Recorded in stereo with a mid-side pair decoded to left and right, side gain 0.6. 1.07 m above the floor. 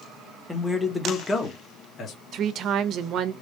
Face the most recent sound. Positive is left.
turn(degrees=-55)